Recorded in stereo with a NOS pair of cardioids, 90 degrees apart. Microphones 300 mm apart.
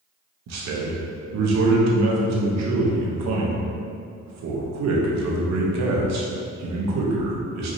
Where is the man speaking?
65° right, 0.9 m.